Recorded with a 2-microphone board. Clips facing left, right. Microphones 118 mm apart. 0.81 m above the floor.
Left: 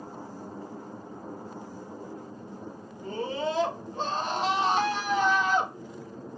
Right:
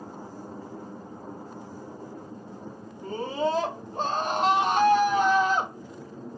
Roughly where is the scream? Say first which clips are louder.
Right 3 dB; right.